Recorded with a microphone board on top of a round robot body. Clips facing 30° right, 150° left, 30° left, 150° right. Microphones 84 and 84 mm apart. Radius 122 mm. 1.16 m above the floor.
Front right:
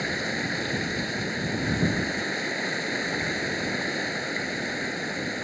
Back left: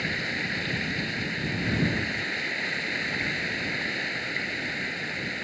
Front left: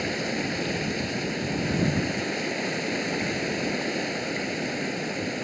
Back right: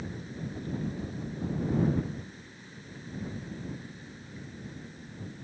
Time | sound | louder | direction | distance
0.0 | running water | front right 2 dB, front left 11 dB | 35° left | ?